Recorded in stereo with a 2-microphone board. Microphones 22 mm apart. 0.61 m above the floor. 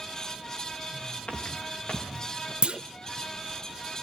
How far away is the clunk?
About 0.8 m.